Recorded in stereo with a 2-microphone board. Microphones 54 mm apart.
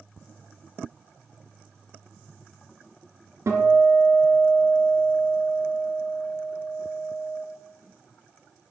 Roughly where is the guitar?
Right.